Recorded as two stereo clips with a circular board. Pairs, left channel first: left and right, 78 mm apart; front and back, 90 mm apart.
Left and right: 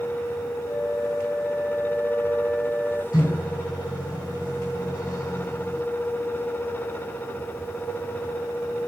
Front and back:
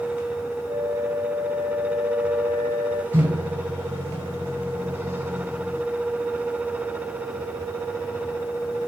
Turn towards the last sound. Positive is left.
turn(degrees=120)